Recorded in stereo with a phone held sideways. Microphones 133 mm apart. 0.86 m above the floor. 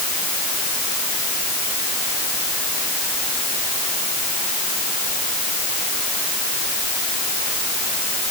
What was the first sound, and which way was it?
Only background noise.